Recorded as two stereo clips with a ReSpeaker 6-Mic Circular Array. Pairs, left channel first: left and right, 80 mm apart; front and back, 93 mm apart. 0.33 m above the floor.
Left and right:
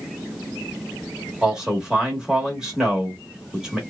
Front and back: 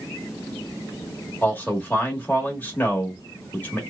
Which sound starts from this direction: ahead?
A man speaking, at 1.4 s.